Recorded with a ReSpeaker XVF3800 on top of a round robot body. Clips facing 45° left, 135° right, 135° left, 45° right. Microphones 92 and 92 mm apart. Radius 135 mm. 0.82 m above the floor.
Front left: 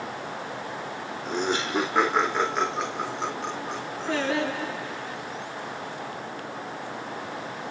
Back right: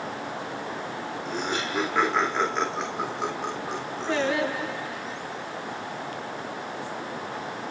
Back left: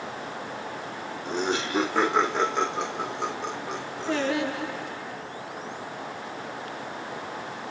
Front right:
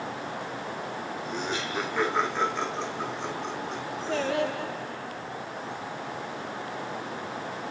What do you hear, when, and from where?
1.2 s laughter: 105° left, 3.5 m; by 4.3 s 160° left, 4 m
4.1 s singing: 110° left, 9.5 m